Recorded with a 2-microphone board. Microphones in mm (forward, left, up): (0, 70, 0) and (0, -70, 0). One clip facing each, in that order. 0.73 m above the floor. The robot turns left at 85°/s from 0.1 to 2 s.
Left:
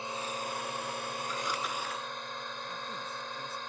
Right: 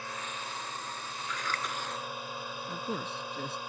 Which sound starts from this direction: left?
A drone, at 0.0 s.